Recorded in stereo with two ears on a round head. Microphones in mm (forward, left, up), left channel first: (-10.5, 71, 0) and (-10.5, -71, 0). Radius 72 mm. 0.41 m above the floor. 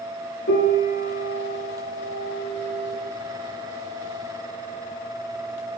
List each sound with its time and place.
0.5 s a piano: 75° left (ahead or behind), 6.5 m